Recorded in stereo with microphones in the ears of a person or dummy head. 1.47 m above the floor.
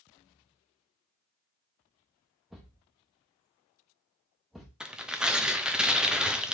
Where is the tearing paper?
Centre (ahead or behind), 0.5 m.